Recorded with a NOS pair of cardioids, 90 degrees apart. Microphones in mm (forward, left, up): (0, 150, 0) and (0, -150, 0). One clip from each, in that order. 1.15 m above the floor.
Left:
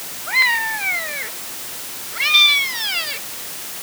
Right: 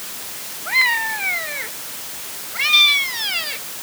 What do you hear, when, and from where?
Only background noise.